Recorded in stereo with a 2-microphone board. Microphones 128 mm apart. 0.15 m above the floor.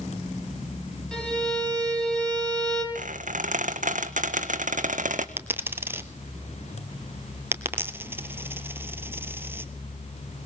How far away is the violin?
About 4.5 m.